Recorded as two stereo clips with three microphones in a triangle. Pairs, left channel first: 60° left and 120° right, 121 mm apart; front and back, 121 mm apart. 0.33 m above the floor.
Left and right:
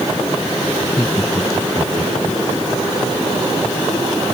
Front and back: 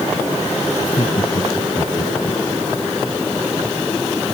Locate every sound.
0.8 s laughter: straight ahead